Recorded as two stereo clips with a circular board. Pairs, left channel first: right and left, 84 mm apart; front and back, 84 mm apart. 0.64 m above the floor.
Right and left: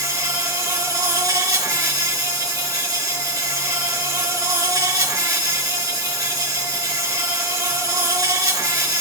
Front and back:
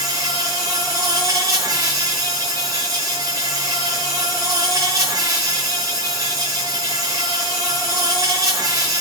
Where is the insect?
135° left, 4 m.